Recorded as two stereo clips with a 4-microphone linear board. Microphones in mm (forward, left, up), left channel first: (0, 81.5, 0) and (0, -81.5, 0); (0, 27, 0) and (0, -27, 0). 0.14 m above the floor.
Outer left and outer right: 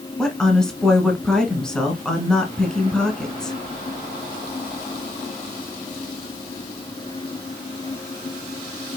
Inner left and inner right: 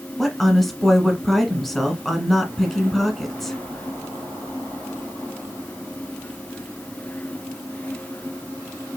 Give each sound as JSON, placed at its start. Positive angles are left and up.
{"t": 0.2, "sound": "a woman speaking", "side_deg": 5, "distance_m": 1.3}